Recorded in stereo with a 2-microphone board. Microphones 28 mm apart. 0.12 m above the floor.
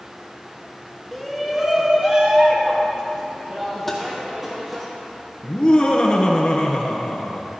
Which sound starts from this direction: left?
Laughter, at 5.4 s.